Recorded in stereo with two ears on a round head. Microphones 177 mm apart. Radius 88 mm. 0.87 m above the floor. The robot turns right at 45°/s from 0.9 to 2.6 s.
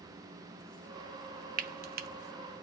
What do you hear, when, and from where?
1.6 s frying: 45° right (ahead or behind), 0.6 m; by 2.1 s 50° right (ahead or behind), 0.6 m